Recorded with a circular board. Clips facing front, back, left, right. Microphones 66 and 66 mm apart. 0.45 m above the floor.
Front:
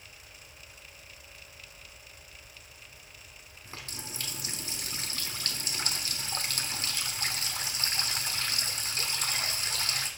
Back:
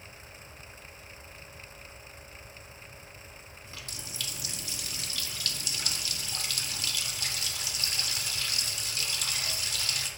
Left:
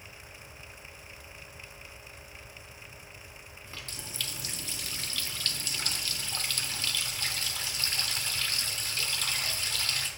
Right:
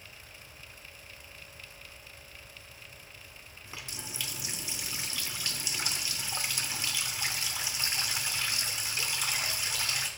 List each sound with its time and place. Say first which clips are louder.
3.6 s a running tap: front 3 dB, right 1 dB; 20° right, 0.6 m